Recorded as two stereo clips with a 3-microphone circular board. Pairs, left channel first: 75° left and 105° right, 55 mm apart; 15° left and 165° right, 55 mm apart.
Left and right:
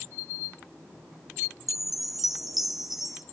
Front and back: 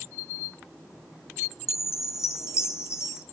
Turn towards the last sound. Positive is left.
turn(degrees=-20)